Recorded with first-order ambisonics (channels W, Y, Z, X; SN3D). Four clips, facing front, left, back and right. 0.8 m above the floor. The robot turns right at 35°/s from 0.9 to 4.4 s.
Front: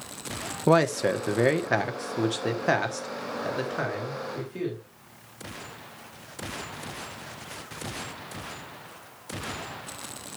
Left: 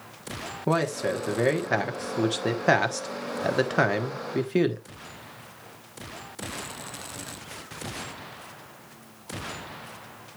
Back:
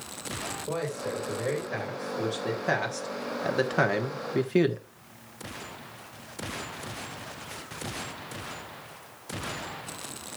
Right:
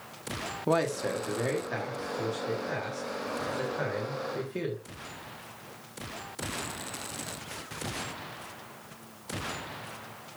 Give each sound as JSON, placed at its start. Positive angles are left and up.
{"t": 0.7, "sound": "a man speaking", "azimuth_deg": 10, "distance_m": 1.2}